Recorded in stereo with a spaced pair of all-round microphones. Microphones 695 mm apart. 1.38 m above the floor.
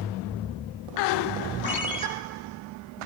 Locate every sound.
1.6 s a ringtone: 10° right (ahead or behind), 4 m